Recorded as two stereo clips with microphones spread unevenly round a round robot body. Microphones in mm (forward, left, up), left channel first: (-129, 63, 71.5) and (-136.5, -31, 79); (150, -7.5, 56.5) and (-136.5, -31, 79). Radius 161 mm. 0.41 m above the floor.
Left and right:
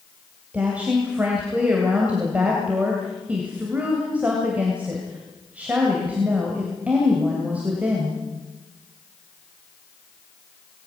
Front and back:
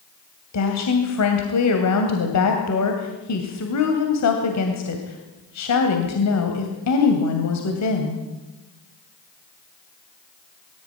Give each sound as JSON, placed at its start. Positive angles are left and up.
{"t": 0.5, "sound": "a woman speaking", "azimuth_deg": -15, "distance_m": 2.5}